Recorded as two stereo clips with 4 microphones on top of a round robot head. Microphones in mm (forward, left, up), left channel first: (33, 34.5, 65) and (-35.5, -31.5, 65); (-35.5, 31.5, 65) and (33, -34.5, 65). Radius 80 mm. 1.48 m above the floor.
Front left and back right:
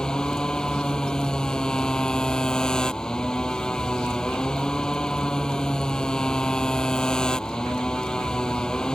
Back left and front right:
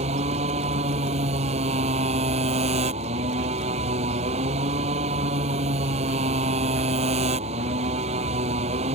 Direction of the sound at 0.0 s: 40° right.